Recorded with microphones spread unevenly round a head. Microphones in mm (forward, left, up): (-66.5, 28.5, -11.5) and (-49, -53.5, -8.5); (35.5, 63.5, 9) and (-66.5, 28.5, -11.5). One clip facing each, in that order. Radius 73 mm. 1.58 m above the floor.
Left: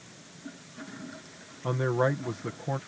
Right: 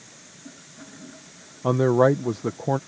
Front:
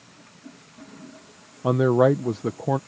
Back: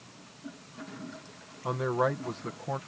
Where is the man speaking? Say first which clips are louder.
Right 9 dB, front 10 dB; 20° right.